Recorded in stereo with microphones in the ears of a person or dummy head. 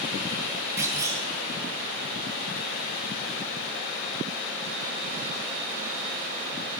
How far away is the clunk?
About 1.8 m.